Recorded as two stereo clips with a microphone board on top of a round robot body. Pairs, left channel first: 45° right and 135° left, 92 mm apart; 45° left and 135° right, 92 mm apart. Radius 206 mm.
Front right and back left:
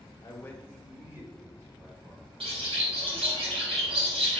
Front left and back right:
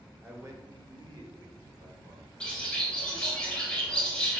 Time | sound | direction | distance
0.2 | a man speaking | 70° right | 1.0 m
2.4 | a bird | 125° left | 0.7 m